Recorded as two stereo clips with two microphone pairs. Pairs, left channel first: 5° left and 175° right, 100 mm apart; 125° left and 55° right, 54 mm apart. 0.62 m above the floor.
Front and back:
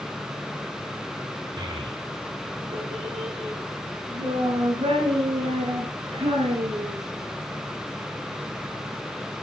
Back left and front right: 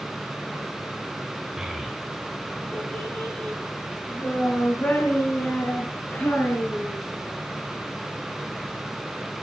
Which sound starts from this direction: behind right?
A child speaking, at 1.6 s.